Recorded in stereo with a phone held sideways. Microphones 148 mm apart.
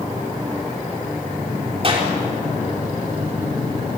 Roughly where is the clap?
Right.